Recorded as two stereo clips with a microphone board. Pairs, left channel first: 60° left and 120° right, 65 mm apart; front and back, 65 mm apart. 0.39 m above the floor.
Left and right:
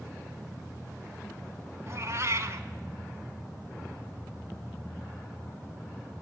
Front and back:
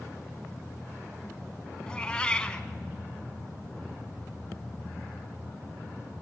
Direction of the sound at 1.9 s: 75° right.